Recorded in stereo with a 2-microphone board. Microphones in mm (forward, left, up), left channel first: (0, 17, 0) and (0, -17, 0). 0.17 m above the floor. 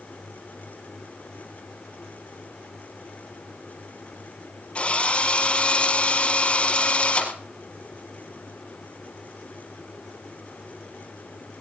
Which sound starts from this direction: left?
A drill, at 4.8 s.